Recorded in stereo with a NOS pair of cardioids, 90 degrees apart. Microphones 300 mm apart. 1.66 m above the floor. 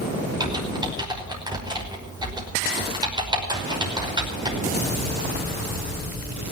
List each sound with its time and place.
0.4 s typing on a keyboard: 15° right, 5.5 m